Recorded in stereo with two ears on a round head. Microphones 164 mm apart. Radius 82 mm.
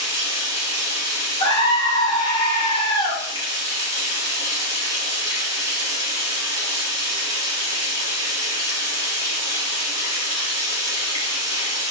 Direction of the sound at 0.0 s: 25° right (ahead or behind).